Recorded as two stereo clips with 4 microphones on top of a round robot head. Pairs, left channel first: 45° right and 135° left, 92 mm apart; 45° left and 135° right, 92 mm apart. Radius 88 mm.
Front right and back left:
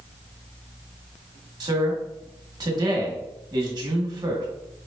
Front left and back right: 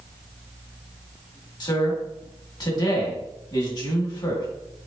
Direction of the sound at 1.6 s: 90° left.